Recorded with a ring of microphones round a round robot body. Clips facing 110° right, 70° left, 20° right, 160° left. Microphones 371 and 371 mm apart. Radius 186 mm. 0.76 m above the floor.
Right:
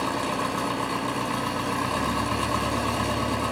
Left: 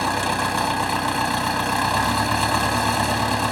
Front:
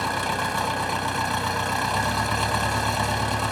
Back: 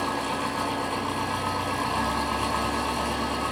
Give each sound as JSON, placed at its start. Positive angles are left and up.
{"t": 0.0, "sound": "an engine running", "azimuth_deg": -5, "distance_m": 2.5}